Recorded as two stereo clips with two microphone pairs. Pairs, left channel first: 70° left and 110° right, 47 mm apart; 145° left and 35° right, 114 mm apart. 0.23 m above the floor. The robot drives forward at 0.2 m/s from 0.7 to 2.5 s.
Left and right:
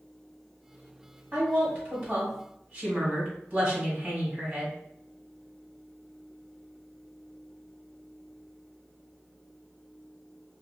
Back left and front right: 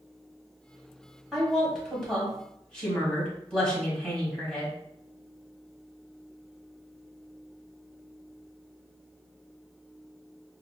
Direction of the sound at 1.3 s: 125° right.